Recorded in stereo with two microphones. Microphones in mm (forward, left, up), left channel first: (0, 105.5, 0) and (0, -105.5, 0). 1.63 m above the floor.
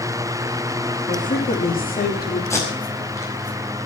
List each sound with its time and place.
1.1 s a woman speaking: 40° left (ahead or behind), 4.5 m; by 2.4 s 45° left (ahead or behind), 4.5 m
2.5 s tape being pulled: 15° left (ahead or behind), 5 m